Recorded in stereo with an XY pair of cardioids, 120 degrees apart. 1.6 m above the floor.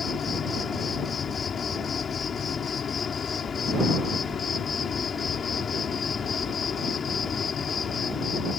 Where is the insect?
35° left.